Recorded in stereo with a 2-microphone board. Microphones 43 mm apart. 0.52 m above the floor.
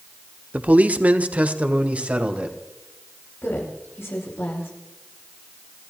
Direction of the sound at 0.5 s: 35° right (ahead or behind).